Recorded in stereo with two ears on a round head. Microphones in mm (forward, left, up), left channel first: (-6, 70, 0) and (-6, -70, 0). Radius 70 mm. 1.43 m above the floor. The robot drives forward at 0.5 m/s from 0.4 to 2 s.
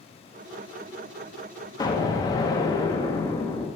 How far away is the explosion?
About 0.7 m.